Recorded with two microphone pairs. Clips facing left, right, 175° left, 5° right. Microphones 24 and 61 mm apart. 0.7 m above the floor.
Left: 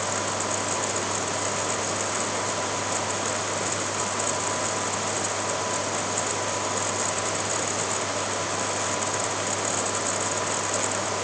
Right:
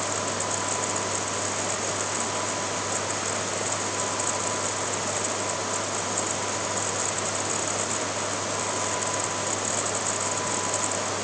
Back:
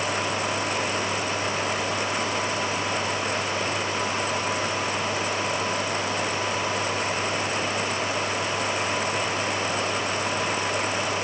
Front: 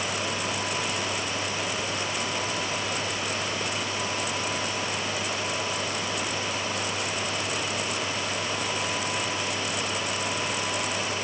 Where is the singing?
No singing in this recording.